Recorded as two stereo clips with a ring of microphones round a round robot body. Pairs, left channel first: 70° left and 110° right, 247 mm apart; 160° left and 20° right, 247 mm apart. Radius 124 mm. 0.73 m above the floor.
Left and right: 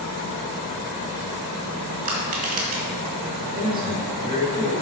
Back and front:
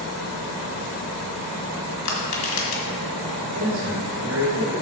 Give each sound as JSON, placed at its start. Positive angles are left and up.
{"t": 2.0, "sound": "crushing", "azimuth_deg": -170, "distance_m": 2.0}
{"t": 3.5, "sound": "a man speaking", "azimuth_deg": -60, "distance_m": 2.5}